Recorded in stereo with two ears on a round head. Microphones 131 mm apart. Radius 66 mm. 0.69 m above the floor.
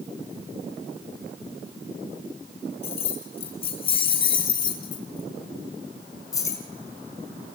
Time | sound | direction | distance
2.8 | keys jangling | 45° left (ahead or behind) | 5 m